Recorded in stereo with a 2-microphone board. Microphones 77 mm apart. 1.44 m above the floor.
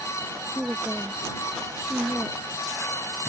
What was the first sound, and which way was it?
A woman speaking, 10° right (ahead or behind).